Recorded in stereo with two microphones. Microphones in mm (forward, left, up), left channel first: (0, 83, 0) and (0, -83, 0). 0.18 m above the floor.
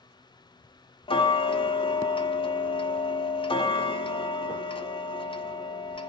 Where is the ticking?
30° left (ahead or behind), 0.6 m.